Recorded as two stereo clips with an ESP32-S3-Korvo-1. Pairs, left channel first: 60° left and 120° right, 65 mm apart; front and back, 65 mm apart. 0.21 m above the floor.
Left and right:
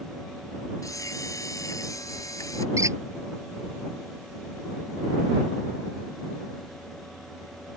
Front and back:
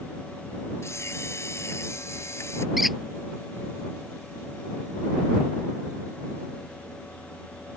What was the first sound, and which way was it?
A camera shutter, 40° left.